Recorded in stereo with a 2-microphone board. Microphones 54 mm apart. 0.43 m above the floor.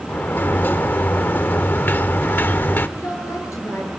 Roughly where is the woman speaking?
Left.